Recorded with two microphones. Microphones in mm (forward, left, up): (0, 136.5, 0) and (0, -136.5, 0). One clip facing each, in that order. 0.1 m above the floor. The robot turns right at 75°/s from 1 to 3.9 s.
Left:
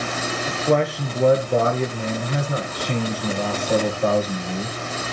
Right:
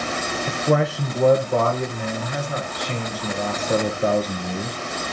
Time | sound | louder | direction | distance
0.5 | a man speaking | left 1 dB | 5° right (ahead or behind) | 1.2 m